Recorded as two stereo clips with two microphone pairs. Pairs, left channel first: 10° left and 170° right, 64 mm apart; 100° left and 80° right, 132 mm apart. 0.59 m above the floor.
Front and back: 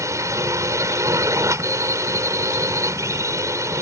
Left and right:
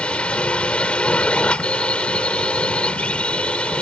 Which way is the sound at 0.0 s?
Straight behind.